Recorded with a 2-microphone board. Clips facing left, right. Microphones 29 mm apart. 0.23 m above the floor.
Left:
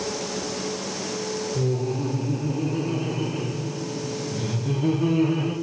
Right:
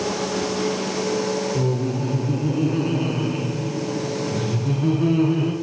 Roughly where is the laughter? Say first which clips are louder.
Right 2 dB; right.